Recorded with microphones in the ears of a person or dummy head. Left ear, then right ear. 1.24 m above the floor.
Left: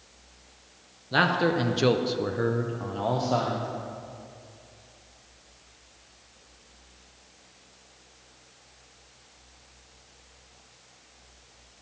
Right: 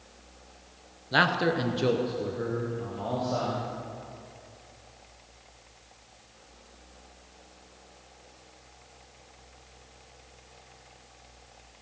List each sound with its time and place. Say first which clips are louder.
1.1 s a man speaking: left 1 dB; 15° right (ahead or behind), 0.9 m; by 3.7 s 55° left (ahead or behind), 1.5 m